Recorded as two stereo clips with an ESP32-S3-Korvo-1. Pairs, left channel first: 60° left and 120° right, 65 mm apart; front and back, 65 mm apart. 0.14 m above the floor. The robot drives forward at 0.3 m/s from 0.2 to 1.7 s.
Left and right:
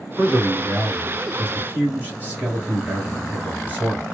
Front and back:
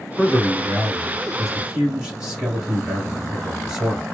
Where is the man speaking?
70° right, 1.4 m; by 4.0 s 115° right, 1.4 m.